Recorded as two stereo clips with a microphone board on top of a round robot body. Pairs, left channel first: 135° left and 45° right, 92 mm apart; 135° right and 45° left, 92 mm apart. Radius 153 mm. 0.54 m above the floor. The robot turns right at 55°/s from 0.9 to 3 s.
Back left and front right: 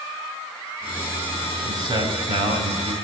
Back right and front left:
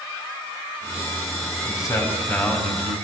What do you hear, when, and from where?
1.6 s a man speaking: 95° right, 6 m; by 3.0 s 25° right, 6 m